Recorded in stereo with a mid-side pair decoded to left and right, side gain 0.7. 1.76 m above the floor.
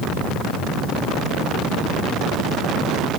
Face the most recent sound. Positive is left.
No sound to turn to.